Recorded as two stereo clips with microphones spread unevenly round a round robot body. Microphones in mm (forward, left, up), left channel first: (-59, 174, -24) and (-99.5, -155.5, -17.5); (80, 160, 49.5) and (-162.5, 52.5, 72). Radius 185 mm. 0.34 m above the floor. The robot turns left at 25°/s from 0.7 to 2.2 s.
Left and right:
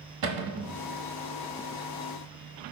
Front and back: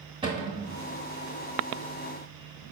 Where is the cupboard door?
85° right, 0.9 m.